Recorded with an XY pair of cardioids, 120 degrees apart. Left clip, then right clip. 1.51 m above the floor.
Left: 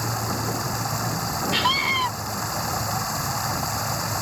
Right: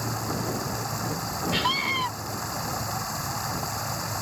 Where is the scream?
20° left.